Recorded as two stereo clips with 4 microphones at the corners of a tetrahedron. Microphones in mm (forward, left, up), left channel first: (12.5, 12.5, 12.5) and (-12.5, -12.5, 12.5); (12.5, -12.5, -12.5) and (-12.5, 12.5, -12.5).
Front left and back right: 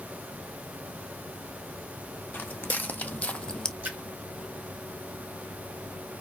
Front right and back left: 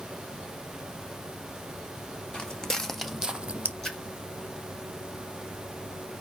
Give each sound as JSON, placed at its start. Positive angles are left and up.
{"t": 2.3, "sound": "footsteps", "azimuth_deg": 20, "distance_m": 1.0}
{"t": 3.8, "sound": "a splash", "azimuth_deg": -115, "distance_m": 1.9}